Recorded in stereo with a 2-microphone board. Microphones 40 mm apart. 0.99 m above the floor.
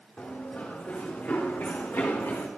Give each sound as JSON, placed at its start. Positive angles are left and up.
{"t": 0.2, "sound": "running footsteps", "side_deg": 25, "distance_m": 4.0}